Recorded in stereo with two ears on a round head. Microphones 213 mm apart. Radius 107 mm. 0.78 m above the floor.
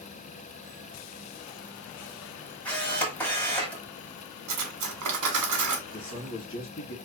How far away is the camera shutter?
About 1.2 m.